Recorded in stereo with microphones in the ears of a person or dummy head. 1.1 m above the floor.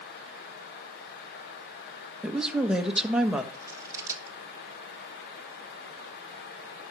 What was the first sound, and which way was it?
A woman speaking, 5° right (ahead or behind).